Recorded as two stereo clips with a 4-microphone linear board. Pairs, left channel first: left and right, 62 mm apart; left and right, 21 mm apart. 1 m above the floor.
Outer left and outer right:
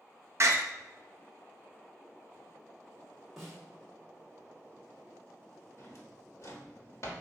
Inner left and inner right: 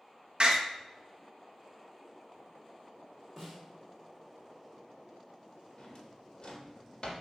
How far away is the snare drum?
About 2.0 m.